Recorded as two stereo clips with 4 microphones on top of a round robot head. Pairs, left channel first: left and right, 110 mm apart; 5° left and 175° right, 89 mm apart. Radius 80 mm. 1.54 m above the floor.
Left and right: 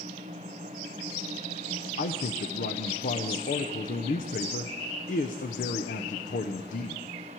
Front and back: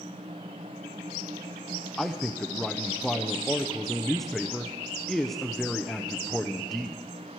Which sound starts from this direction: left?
A man speaking, at 2.0 s.